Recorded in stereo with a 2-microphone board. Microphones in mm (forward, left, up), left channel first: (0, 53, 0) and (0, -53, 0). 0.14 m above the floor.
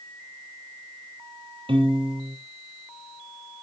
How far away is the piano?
About 2.0 m.